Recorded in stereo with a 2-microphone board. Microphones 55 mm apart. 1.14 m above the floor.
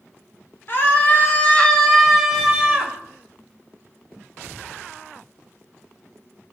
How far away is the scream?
About 1.2 m.